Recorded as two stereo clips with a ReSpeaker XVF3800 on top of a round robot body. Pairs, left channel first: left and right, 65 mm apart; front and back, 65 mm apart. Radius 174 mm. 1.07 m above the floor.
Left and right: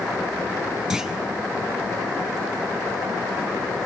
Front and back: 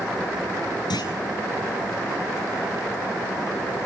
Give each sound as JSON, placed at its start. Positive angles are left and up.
{"t": 0.9, "sound": "a clunk", "azimuth_deg": -10, "distance_m": 4.0}